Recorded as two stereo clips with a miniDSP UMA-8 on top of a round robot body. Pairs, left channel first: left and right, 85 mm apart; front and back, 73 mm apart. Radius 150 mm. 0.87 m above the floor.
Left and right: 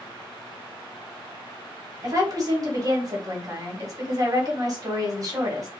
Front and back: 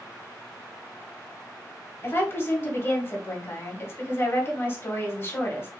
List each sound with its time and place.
2.0 s a woman speaking: 55° right, 1.7 m